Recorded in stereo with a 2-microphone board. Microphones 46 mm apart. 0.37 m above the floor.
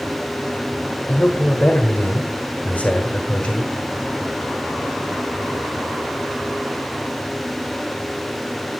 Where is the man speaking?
30° left (ahead or behind), 1.3 m.